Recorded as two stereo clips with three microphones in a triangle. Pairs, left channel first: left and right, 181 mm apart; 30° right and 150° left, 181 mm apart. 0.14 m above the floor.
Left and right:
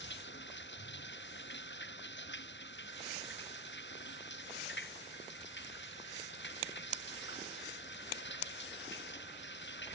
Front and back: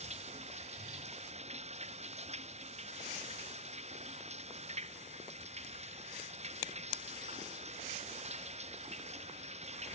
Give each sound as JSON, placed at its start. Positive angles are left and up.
{"t": 0.0, "sound": "running water", "azimuth_deg": 95}